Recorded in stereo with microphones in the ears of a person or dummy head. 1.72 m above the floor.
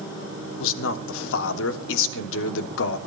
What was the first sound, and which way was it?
A man speaking, 75° left (ahead or behind).